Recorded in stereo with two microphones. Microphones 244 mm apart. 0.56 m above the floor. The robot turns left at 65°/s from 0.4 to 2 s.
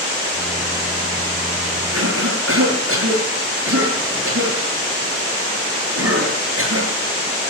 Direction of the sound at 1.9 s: 65° right (ahead or behind).